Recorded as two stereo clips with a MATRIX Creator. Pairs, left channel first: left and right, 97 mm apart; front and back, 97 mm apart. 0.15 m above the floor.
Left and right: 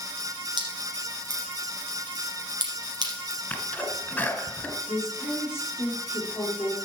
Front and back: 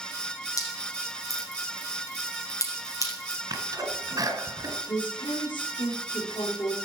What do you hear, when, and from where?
0.6 s dripping: 55° right, 3.5 m
3.5 s a sneeze: 155° left, 2.0 m
4.9 s a woman speaking: 30° left, 4 m